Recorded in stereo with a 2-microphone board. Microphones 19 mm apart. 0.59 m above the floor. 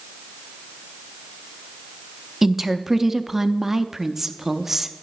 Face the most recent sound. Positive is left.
turn(degrees=-20)  # may be behind; listen again after turning